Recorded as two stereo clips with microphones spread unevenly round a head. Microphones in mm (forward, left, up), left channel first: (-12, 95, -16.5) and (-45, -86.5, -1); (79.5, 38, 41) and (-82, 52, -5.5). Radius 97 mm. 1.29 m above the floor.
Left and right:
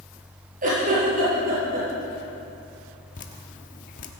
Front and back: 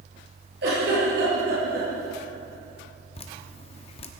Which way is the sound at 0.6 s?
145° right.